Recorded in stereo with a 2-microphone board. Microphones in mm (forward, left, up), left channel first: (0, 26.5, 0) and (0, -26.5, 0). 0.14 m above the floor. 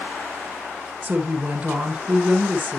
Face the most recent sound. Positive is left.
turn(degrees=-20)  # may be behind; listen again after turning